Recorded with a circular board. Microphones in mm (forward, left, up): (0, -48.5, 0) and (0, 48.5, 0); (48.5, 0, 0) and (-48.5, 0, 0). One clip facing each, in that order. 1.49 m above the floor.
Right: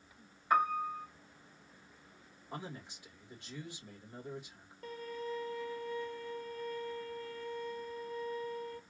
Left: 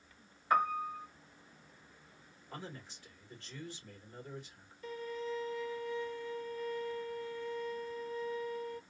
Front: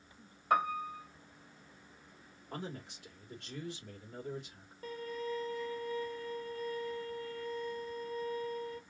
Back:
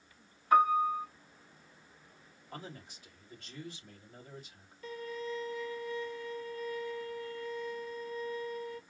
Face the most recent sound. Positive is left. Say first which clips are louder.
# left 1 dB, even
turn(degrees=-50)